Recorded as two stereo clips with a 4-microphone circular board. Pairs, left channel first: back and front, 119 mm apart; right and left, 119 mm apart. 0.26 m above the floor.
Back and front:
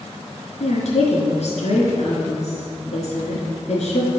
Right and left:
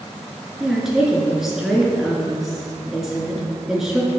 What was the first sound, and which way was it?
A woman speaking, 175° left.